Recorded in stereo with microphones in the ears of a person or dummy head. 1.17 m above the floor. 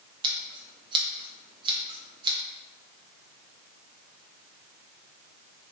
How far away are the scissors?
About 0.5 m.